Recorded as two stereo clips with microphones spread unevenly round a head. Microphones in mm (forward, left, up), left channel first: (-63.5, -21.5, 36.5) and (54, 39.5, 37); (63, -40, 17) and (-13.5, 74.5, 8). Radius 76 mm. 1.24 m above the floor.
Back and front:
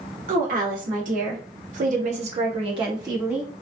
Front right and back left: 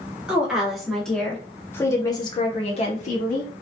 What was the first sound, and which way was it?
A woman speaking, 40° left.